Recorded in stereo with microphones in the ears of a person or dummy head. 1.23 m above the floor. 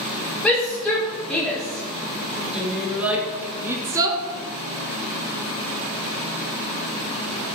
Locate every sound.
0.4 s a shout: 10° left (ahead or behind), 4.5 m; by 4.2 s 20° right (ahead or behind), 1.4 m